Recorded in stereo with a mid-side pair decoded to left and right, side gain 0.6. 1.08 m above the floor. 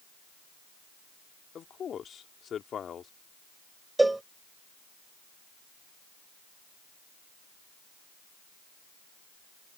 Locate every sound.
1.6 s a man speaking: 40° left
4.0 s a cowbell: 10° right